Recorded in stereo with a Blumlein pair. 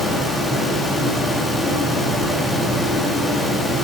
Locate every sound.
0.0 s a fan: 10° left, 2.5 m